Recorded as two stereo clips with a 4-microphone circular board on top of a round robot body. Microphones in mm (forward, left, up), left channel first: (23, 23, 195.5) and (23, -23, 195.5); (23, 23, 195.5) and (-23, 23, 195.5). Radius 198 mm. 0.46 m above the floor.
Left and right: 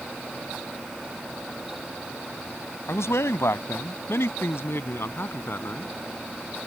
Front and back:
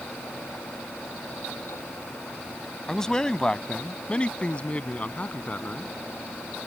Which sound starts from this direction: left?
A man speaking, at 2.9 s.